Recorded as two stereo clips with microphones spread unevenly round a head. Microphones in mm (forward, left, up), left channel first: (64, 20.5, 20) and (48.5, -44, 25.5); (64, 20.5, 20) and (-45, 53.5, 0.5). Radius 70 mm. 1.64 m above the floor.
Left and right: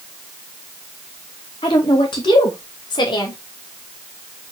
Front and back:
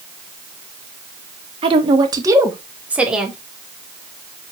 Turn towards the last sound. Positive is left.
turn(degrees=75)